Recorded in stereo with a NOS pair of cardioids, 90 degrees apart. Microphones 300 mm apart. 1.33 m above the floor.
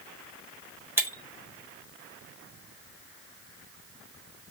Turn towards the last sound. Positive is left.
turn(degrees=-5)